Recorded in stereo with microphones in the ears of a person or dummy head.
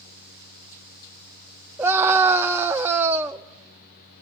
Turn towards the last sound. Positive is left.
turn(degrees=-10)  # may be behind; listen again after turning